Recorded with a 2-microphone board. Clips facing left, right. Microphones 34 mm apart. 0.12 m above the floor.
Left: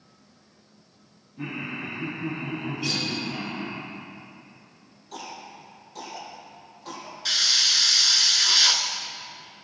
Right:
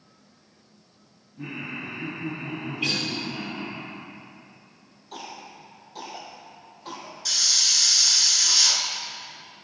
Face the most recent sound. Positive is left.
turn(degrees=35)  # may be behind; listen again after turning